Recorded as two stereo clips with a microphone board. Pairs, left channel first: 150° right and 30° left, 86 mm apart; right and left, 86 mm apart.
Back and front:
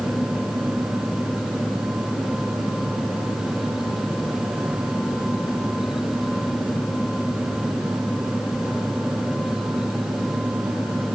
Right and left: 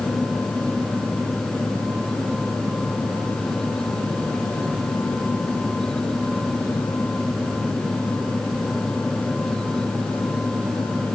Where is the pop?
I don't hear a pop.